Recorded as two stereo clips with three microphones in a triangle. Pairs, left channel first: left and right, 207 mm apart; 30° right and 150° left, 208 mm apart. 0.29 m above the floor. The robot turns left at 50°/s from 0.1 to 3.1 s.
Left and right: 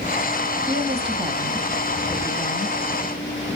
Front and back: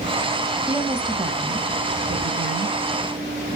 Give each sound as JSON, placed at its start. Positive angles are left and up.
{"t": 0.7, "sound": "a woman speaking", "azimuth_deg": -125, "distance_m": 1.6}